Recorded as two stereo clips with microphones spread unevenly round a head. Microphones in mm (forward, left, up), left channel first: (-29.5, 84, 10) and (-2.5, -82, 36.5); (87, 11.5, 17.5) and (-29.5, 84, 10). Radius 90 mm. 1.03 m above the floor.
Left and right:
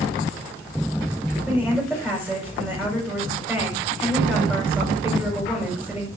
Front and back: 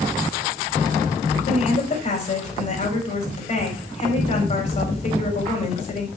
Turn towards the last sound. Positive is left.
turn(degrees=0)